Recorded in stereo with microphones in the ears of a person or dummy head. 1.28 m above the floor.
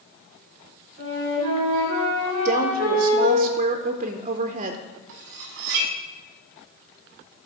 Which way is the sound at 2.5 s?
30° right (ahead or behind).